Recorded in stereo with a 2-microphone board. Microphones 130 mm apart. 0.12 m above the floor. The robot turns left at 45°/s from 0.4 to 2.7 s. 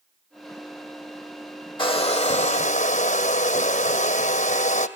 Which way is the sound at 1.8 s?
140° left.